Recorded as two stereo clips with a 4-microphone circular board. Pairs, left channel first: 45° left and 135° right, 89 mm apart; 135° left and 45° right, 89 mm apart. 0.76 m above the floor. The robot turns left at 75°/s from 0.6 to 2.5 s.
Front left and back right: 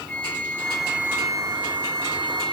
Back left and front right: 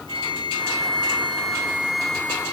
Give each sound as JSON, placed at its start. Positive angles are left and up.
{"t": 0.1, "sound": "a flute", "azimuth_deg": -30, "distance_m": 2.5}